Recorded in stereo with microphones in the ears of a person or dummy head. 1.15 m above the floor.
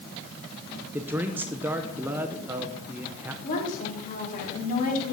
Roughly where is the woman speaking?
Left.